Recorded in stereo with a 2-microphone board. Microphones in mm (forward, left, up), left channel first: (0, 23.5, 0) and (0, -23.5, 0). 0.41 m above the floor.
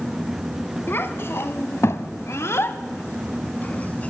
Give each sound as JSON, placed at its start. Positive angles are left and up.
{"t": 0.9, "sound": "a child speaking", "side_deg": 50, "distance_m": 1.9}